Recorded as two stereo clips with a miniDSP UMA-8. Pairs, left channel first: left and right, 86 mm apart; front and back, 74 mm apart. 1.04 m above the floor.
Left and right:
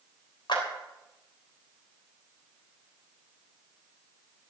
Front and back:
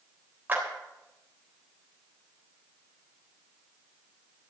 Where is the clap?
115° left, 3.5 m.